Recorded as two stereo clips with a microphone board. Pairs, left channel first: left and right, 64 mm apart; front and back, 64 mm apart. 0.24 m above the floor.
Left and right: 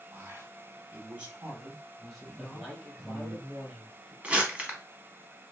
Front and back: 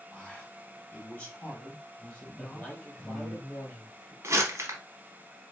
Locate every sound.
0.1 s a man speaking: 65° right, 1.5 m; by 3.4 s 60° left, 1.3 m
2.4 s a man speaking: 10° right, 1.5 m
4.2 s crumpling: 155° right, 0.9 m